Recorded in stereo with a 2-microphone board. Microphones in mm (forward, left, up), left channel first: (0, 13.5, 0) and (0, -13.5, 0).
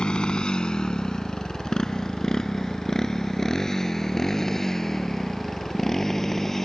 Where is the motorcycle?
40° left (ahead or behind); by 6.7 s 15° left (ahead or behind).